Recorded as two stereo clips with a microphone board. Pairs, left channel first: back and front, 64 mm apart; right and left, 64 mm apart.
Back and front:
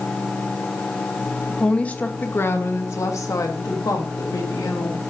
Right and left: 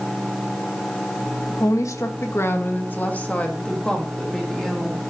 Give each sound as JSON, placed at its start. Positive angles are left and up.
{"t": 1.5, "sound": "a woman speaking", "azimuth_deg": -100, "distance_m": 1.0}